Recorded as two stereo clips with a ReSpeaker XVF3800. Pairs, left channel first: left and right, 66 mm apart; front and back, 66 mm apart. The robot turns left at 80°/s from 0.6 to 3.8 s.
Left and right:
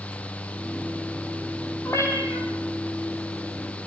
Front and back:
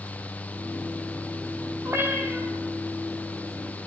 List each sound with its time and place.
1.9 s a cat meowing: 140° left, 4.5 m; by 2.5 s 90° left, 4.5 m